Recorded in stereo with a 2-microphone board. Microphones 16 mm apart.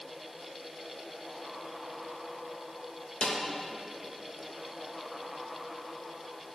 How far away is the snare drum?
About 0.9 m.